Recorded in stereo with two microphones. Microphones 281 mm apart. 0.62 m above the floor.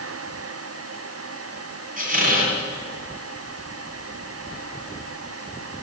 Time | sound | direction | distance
2.0 | a squeak | 30° right (ahead or behind) | 3 m